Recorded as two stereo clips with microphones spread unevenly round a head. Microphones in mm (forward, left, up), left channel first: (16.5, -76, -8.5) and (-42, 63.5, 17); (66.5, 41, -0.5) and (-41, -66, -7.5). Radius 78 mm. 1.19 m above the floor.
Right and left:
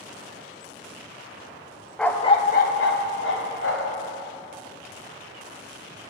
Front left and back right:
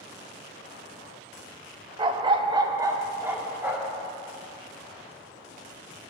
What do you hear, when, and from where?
2.0 s a dog barking: 165° right, 0.6 m; by 4.0 s 55° right, 1.8 m